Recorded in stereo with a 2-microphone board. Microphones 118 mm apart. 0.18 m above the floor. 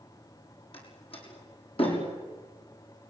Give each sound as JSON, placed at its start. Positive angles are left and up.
{"t": 0.7, "sound": "a door slam", "side_deg": 50, "distance_m": 6.5}